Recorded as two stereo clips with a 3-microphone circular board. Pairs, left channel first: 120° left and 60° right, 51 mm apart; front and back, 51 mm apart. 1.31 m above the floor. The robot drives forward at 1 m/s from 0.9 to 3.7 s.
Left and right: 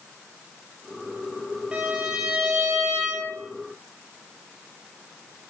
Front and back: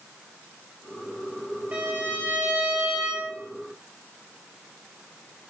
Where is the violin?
130° right, 3.5 m; by 3.3 s 145° right, 4.5 m.